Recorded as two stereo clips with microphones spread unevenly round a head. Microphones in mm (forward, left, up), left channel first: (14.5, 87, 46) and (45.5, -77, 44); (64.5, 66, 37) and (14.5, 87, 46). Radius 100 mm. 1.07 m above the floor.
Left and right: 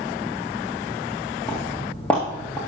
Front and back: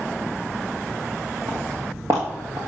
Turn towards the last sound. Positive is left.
turn(degrees=-175)